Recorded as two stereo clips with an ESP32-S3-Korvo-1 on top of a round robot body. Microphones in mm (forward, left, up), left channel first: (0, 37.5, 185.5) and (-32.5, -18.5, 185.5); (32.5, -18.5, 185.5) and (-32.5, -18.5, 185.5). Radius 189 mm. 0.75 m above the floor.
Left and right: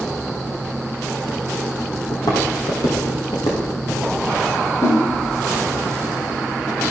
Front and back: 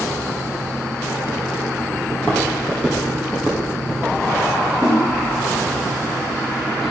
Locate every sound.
2.1 s footsteps: 65° left, 1.8 m; by 4.2 s 80° left, 3 m
4.8 s a whoosh: 95° left, 0.6 m